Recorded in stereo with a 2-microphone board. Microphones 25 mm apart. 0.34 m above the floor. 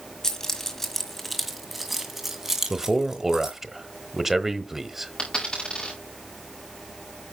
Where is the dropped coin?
30° left (ahead or behind), 5.5 m.